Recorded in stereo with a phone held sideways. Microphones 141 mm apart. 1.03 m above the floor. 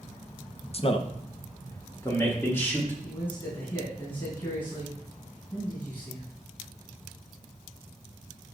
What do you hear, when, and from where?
0.7 s a man speaking: 45° left (ahead or behind), 0.6 m; by 2.9 s 15° left (ahead or behind), 2.5 m
3.0 s a man speaking: 35° left (ahead or behind), 4 m